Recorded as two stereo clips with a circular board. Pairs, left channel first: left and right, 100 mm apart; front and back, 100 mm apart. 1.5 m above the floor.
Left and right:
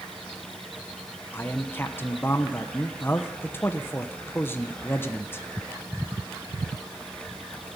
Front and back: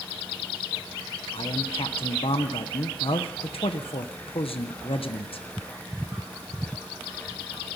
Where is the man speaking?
25° left, 1.0 m.